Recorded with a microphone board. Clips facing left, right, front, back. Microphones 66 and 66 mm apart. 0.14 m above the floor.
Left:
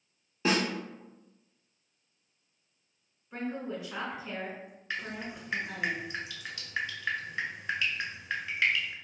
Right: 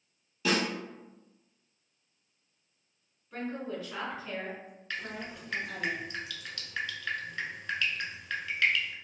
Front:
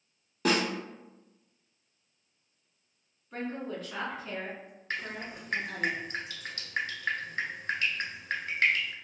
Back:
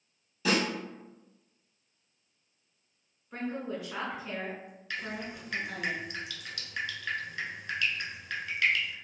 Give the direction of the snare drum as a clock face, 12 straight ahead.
11 o'clock.